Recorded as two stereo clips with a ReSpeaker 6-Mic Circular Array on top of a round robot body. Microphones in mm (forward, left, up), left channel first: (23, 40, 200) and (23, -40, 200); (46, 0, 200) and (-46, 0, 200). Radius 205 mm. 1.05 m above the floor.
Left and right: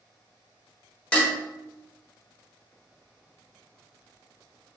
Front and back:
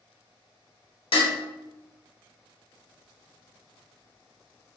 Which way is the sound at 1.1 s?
15° left.